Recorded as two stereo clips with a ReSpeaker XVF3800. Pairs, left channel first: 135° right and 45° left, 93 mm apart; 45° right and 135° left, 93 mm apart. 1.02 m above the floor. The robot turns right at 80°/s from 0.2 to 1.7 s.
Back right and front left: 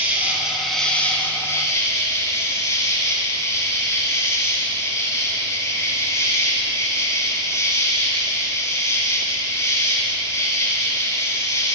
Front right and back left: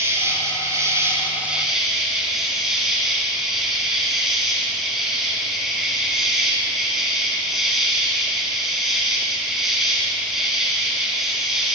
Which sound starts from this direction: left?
An insect, at 0.0 s.